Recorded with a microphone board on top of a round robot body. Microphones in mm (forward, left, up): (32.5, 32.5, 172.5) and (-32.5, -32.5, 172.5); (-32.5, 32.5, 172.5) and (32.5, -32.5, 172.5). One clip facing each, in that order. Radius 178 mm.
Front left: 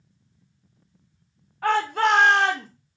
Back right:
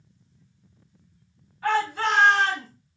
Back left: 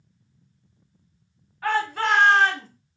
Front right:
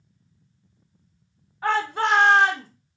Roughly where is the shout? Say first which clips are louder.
Front left 3 dB, front right 1 dB; ahead.